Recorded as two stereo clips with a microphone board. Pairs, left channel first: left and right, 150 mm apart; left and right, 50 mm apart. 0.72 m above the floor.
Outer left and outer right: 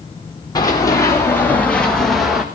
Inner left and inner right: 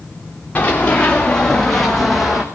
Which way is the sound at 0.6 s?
25° left (ahead or behind).